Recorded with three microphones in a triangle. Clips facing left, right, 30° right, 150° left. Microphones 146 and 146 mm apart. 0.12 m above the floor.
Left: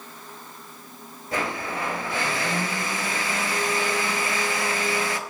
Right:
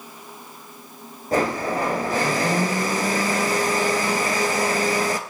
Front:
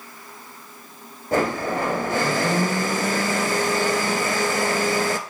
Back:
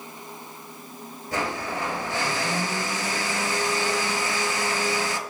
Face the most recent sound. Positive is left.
turn(degrees=-50)